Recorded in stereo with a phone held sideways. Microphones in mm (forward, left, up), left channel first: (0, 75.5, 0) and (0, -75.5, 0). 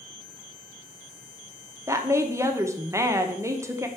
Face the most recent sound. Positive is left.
turn(degrees=-20)  # may be behind; listen again after turning